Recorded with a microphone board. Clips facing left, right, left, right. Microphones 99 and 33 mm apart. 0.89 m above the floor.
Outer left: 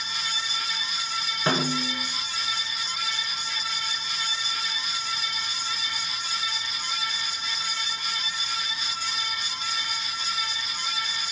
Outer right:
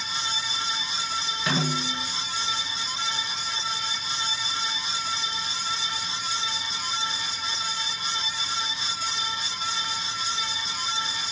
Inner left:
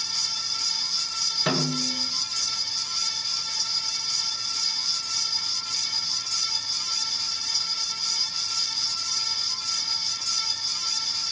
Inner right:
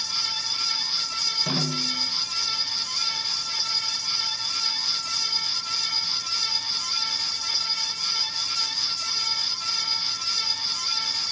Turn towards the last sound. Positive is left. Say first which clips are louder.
# outer left 2 dB, inner left 1 dB
turn(degrees=35)  # may be behind; listen again after turning